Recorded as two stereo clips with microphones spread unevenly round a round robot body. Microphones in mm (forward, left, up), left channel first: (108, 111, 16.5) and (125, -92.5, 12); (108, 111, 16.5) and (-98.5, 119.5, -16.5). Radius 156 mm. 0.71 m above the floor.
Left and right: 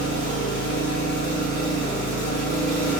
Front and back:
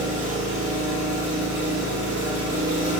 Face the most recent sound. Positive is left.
turn(degrees=145)